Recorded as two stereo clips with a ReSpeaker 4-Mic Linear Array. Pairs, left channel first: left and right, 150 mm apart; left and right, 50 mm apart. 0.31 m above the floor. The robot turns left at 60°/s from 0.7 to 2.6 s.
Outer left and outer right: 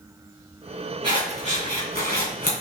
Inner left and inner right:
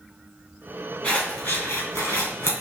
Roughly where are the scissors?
Left.